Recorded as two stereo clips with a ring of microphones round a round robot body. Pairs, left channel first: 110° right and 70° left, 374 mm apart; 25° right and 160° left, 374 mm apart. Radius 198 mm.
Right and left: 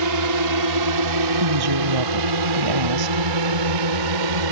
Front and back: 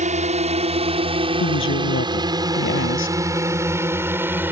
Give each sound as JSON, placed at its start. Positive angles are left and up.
{"t": 0.0, "sound": "a drone", "azimuth_deg": 90}
{"t": 1.4, "sound": "a woman speaking", "azimuth_deg": 35}